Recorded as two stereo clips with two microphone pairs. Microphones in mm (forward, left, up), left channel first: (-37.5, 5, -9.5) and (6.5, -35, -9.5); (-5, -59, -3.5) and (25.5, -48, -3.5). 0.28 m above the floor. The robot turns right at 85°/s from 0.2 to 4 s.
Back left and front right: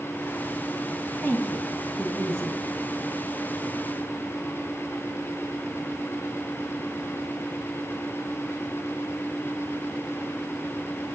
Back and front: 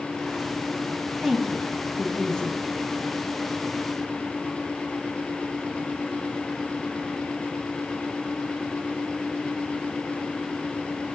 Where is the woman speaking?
110° left, 1.5 m; by 2.6 s 135° right, 1.5 m.